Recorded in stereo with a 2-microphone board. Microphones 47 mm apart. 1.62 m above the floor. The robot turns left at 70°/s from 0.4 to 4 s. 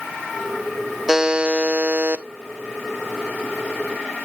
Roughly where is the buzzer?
Ahead.